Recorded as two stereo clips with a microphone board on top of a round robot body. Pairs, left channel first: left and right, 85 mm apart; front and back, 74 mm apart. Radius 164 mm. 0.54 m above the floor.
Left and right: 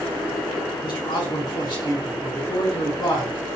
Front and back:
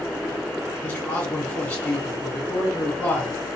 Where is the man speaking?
70° left, 2 m.